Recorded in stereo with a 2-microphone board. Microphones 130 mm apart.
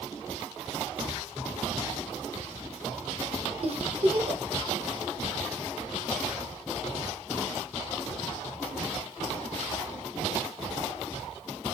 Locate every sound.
3.6 s a giggle: 50° right (ahead or behind), 0.6 m